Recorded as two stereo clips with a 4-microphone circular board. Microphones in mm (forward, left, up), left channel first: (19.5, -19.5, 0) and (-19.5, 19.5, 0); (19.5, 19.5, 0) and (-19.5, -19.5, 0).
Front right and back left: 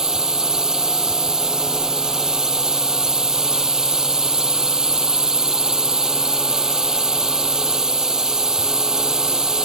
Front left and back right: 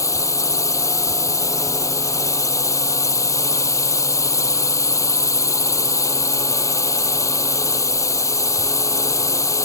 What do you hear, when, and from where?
0.0 s a drone: 55° left